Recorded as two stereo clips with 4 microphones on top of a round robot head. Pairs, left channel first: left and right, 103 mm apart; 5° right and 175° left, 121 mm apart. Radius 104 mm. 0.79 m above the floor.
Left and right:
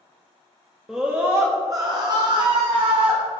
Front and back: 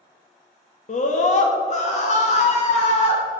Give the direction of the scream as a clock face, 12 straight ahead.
12 o'clock.